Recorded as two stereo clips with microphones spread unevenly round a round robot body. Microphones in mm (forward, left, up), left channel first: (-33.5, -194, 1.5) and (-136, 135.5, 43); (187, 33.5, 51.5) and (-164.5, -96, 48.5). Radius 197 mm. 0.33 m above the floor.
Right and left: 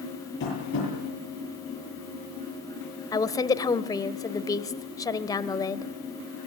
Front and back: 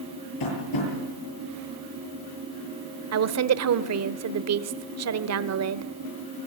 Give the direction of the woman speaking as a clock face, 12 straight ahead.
5 o'clock.